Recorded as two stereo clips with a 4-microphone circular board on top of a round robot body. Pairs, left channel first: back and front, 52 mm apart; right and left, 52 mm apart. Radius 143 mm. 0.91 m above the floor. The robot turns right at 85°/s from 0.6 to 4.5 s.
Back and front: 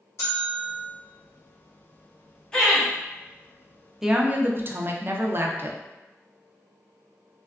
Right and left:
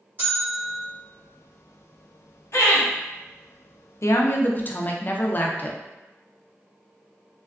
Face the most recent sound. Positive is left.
turn(degrees=-40)